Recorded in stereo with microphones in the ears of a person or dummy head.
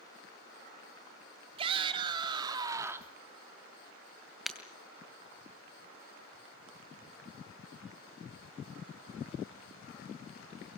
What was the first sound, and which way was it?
A shout, 30° right (ahead or behind).